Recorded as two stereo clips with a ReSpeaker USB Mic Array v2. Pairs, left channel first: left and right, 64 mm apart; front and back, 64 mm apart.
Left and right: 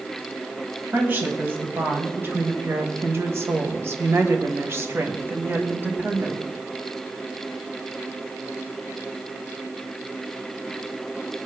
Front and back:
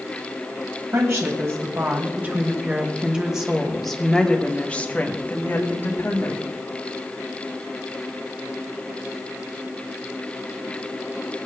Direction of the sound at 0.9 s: 145° right.